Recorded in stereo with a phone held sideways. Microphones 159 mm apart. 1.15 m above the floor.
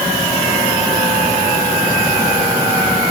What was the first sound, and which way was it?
Only background noise.